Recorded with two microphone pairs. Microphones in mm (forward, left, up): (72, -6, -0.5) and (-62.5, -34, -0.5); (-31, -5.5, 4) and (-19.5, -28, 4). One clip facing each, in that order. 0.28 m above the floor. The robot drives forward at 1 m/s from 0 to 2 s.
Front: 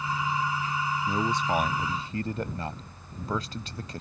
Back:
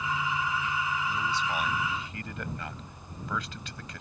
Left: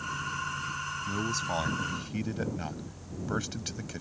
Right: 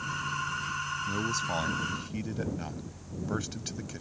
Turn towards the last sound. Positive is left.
turn(degrees=45)